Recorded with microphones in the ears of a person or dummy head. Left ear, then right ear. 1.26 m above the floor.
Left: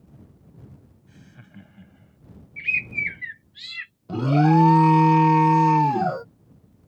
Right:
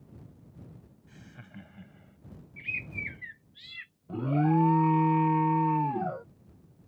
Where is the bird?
40° left (ahead or behind).